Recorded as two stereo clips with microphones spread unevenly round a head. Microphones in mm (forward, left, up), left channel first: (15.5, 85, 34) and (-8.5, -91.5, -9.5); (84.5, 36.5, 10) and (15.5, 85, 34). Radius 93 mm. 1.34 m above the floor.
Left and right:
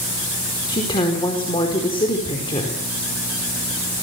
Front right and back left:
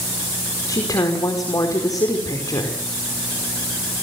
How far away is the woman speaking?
About 5 m.